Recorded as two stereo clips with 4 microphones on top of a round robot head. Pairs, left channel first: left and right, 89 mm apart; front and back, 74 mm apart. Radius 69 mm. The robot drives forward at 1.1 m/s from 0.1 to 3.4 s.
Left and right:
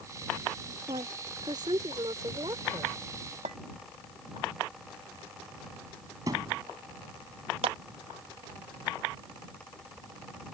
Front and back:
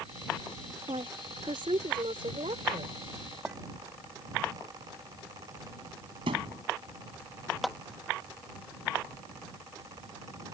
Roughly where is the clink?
Right.